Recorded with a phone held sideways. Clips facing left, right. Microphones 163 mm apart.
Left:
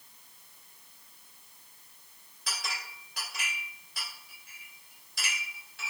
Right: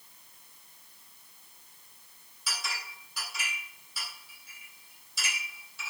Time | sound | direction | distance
2.5 | a clink | 60° left (ahead or behind) | 2.5 m